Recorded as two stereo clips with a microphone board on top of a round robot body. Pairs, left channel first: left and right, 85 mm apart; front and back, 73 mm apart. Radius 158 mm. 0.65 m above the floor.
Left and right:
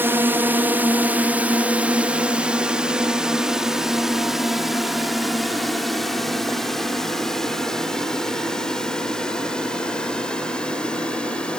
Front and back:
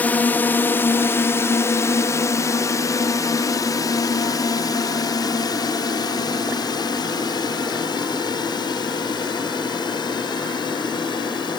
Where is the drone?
50° right; by 11.6 s 10° left.